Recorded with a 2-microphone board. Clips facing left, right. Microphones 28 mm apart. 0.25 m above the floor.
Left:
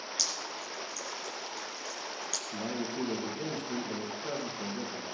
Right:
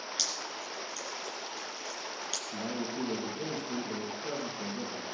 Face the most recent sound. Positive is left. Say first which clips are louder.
# left 1 dB
turn(degrees=60)  # may be behind; listen again after turning